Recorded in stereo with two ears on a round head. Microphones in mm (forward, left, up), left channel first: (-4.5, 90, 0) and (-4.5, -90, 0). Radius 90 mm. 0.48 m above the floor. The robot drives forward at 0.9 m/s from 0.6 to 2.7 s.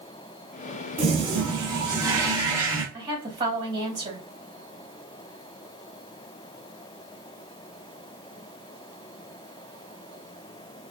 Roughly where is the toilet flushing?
Right.